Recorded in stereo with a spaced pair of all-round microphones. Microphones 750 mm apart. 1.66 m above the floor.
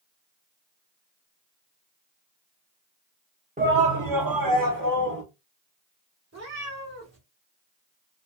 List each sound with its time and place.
3.6 s a shout: 10° right (ahead or behind), 0.6 m; by 5.2 s 25° right (ahead or behind), 1.6 m
6.3 s a cat meowing: 20° right (ahead or behind), 1.4 m